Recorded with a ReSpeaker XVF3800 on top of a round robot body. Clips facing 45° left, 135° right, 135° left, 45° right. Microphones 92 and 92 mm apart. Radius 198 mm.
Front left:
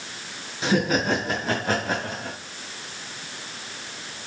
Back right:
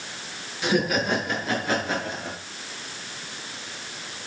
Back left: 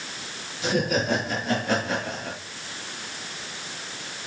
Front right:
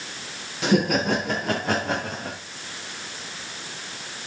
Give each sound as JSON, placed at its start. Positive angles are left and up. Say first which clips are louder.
{"t": 0.6, "sound": "laughter", "louder": "front left 1 dB, front right 3 dB", "azimuth_deg": -20, "distance_m": 8.0}